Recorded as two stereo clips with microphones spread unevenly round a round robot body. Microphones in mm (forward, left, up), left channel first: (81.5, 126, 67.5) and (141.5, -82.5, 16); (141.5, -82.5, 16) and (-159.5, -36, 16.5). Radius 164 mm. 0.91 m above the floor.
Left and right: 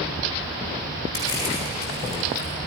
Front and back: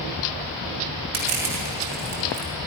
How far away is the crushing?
About 6 m.